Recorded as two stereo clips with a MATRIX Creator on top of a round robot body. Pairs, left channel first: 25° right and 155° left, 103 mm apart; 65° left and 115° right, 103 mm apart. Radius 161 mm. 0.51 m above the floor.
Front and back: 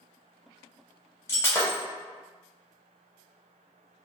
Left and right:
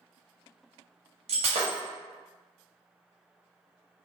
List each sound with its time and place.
1.3 s breaking glass: 90° right, 0.6 m